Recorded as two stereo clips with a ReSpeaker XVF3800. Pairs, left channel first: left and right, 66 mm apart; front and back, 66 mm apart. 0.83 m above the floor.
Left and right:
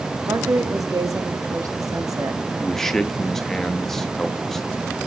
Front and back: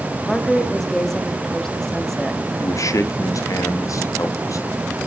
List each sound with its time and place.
0.3 s a woman speaking: 85° right, 1.9 m
2.6 s a man speaking: 5° left, 1.4 m